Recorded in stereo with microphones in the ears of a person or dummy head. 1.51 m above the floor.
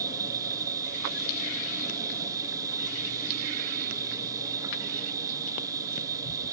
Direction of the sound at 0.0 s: 20° right (ahead or behind).